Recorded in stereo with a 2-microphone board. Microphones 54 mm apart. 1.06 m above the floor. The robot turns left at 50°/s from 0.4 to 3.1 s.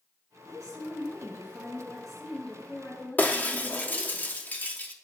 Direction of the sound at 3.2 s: 30° left (ahead or behind).